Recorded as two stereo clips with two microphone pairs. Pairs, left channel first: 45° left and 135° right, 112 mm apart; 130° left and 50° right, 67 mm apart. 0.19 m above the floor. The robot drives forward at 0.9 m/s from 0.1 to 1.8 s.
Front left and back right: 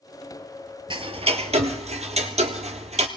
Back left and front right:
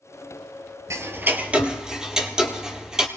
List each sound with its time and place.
0.9 s ticking: 95° right, 1.0 m; by 3.1 s 135° right, 1.3 m